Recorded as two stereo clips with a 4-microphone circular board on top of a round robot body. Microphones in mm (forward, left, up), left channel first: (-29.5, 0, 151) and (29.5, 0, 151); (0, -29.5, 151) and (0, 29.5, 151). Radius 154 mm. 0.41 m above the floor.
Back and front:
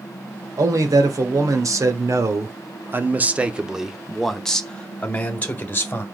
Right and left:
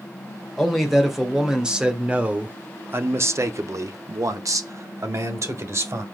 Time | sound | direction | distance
0.6 | a man speaking | straight ahead | 2 m